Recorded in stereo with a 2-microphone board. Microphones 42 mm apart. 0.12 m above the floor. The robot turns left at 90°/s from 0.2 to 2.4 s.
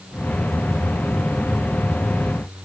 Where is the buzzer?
I don't hear a buzzer.